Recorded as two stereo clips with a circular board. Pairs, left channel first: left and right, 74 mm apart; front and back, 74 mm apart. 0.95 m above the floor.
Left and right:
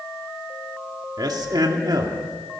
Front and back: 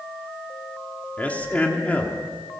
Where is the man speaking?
70° right, 1.9 m.